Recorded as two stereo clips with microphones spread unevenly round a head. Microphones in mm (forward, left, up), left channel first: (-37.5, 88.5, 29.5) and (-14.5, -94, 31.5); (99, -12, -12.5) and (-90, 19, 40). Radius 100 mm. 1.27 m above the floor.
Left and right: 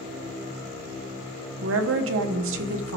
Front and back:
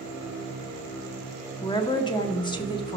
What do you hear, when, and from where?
1.6 s a woman speaking: 75° right, 1.0 m